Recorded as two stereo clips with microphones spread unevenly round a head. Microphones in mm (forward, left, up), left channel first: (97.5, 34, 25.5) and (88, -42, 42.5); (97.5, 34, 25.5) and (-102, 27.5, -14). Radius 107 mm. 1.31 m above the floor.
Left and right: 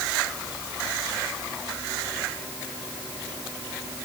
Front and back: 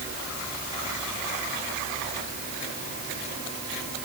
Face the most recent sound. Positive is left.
No sound to turn to.